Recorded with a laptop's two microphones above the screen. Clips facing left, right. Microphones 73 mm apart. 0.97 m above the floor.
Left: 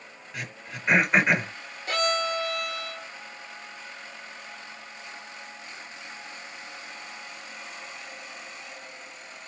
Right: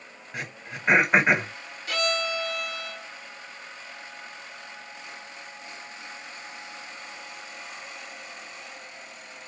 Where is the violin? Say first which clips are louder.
Left 2 dB; 35° left (ahead or behind), 1.2 m.